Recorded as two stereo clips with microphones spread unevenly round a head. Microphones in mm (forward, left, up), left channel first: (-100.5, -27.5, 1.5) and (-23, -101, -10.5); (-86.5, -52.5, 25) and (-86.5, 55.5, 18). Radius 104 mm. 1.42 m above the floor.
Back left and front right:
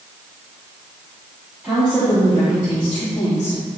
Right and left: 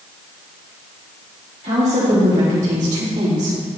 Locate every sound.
1.6 s a woman speaking: 45° left, 3.5 m; by 3.6 s 80° left, 3 m